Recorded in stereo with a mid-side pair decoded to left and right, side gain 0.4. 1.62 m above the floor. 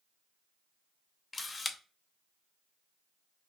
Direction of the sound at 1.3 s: 35° left.